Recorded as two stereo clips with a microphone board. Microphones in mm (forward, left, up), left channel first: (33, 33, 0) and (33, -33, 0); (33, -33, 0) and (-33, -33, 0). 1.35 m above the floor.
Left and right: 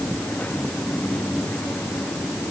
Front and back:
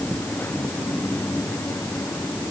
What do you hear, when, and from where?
Only background noise.